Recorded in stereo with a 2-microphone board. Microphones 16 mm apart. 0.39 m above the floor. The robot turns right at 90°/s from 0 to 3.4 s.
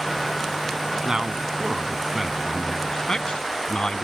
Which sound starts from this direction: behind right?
A man speaking, at 1.1 s.